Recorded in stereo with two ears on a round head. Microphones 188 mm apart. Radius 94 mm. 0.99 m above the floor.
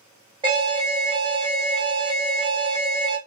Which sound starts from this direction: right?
An alarm, at 0.4 s.